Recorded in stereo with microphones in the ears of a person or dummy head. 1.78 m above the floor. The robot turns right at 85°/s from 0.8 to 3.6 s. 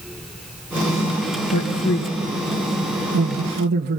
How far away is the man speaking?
About 1.8 m.